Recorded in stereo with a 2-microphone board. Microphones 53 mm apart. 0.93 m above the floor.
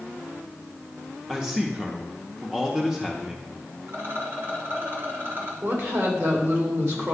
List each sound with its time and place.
1.3 s a man speaking: 10° right (ahead or behind), 0.7 m
3.9 s a rattle: 55° right (ahead or behind), 2 m
5.6 s a woman speaking: 55° right (ahead or behind), 2.5 m